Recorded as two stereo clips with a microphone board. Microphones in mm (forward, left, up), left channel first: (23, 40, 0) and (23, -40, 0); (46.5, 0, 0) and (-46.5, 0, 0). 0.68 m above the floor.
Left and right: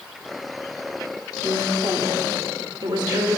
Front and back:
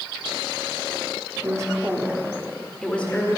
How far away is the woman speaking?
About 1.3 m.